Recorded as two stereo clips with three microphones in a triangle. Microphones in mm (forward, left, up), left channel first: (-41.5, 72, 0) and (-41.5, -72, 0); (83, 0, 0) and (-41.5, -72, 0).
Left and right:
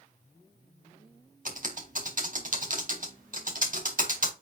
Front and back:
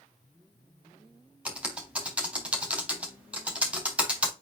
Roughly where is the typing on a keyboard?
Right.